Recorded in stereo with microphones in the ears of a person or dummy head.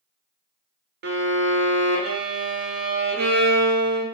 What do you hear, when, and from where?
1.0 s a violin: 50° right (ahead or behind), 0.7 m